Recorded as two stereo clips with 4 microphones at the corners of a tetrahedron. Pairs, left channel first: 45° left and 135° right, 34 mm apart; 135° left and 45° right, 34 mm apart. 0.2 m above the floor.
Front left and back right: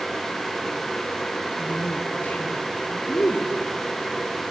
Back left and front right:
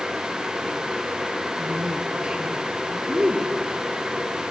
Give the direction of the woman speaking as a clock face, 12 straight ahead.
11 o'clock.